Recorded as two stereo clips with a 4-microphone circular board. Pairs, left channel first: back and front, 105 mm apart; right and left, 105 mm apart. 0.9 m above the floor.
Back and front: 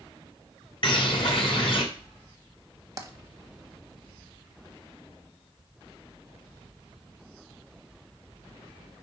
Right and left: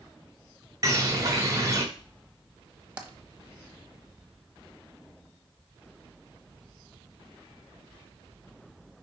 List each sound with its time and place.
0.8 s a bird: 150° left, 1.3 m
3.0 s tapping: 20° left, 0.9 m